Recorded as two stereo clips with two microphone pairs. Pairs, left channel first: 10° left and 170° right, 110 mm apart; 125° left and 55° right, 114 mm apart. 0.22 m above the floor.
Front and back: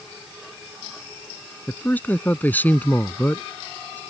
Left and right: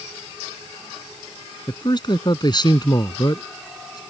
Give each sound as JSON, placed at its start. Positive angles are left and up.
{"t": 1.7, "sound": "a man speaking", "azimuth_deg": 80}